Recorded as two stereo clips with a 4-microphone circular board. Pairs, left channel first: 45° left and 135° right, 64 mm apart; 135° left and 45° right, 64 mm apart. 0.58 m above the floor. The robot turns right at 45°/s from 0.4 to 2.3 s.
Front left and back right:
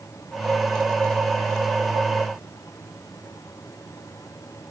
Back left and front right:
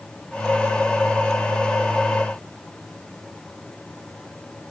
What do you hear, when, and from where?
Only background noise.